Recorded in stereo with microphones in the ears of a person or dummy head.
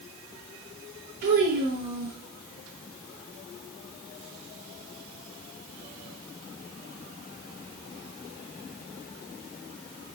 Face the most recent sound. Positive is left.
turn(degrees=-50)  # may be behind; listen again after turning